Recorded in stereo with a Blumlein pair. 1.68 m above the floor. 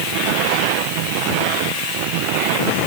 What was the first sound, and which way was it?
Only background noise.